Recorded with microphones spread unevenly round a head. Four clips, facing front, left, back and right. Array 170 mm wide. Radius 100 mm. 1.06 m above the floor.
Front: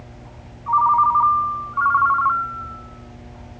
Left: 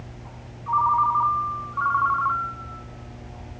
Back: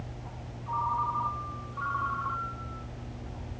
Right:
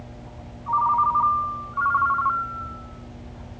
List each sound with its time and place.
0.7 s a ringtone: 15° left, 4 m